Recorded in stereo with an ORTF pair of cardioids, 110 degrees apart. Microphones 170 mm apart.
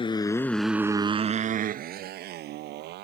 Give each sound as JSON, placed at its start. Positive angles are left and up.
{"t": 0.0, "sound": "a motorcycle", "azimuth_deg": 30}